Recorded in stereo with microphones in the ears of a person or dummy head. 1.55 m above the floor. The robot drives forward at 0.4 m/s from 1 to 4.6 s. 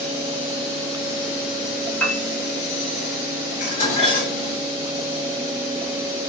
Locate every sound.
2.0 s a piano: 5° left (ahead or behind), 0.7 m
3.6 s dishes clattering: 45° left (ahead or behind), 1.5 m; by 4.5 s 40° left (ahead or behind), 1.8 m